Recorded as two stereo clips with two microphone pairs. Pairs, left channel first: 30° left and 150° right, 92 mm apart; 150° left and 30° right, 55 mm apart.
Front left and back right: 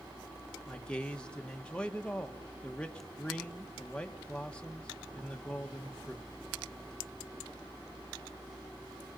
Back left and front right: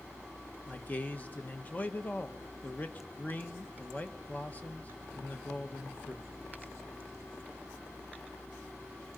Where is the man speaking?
100° left, 1.1 m.